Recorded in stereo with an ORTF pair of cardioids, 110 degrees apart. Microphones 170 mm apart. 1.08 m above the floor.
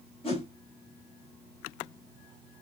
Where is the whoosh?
35° left, 2 m.